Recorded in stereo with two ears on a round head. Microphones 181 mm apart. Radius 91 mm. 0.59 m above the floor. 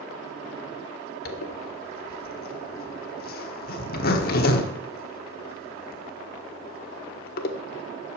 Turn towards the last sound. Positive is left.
turn(degrees=50)  # may be behind; listen again after turning